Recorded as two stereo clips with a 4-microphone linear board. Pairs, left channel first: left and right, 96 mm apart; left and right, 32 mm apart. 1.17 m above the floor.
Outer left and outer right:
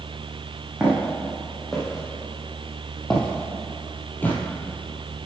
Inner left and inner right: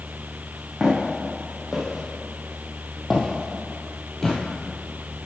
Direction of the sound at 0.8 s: 10° right (ahead or behind).